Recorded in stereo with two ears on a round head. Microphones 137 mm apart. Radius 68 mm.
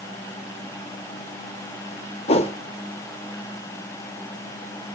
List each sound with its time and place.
2.3 s a whoosh: 40° left (ahead or behind), 1.5 m